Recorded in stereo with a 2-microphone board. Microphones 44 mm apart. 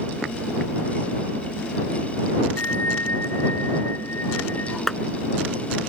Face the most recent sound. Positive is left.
turn(degrees=5)  # may be behind; listen again after turning